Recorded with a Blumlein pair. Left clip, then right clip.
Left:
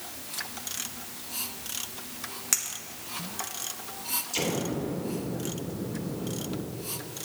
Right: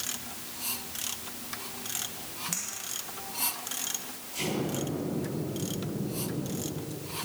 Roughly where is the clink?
Ahead left.